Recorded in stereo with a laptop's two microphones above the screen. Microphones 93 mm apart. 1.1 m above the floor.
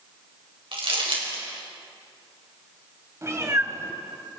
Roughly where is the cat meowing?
Right.